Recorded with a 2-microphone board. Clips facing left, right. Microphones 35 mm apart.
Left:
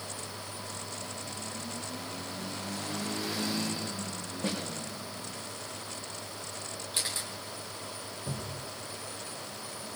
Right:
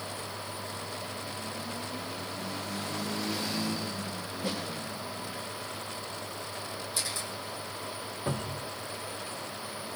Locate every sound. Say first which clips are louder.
4.4 s a snare drum: left 1 dB; 50° left (ahead or behind), 7 m
6.9 s a camera shutter: left 2 dB; 50° left (ahead or behind), 2.5 m
8.3 s a cupboard door: right 6 dB; 55° right (ahead or behind), 2.5 m